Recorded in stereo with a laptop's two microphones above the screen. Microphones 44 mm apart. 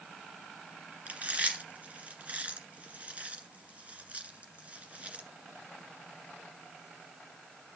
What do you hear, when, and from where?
1.1 s chewing: 30° right (ahead or behind), 1.9 m